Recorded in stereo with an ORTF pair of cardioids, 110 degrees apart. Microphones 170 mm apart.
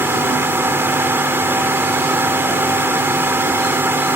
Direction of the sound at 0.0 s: 10° right.